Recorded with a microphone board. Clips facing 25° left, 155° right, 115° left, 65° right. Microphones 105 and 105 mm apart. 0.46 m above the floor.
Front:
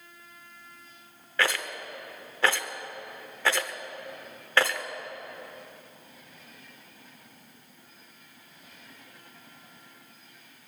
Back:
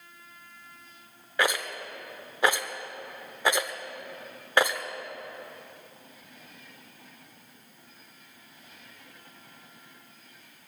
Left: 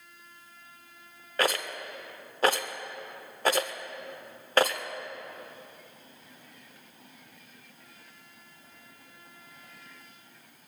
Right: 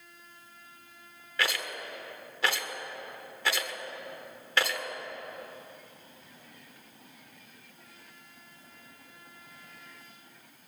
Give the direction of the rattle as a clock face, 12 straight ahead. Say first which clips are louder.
Back 1 dB, left 4 dB; 8 o'clock.